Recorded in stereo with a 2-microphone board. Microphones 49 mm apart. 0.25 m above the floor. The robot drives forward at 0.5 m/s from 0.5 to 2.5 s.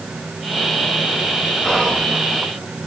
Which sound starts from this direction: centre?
Whispering, at 1.6 s.